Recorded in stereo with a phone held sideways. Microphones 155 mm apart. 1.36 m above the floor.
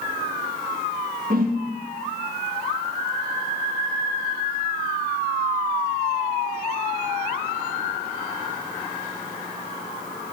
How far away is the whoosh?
About 1.2 m.